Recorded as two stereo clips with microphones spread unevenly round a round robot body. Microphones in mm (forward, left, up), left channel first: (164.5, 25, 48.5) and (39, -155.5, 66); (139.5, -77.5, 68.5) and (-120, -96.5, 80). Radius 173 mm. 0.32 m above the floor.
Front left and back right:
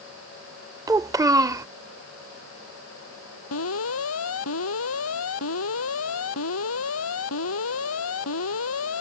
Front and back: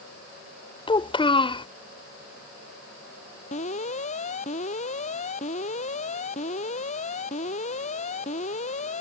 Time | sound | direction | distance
0.9 | a child speaking | 55° right | ?
3.5 | an alarm | 70° left | ?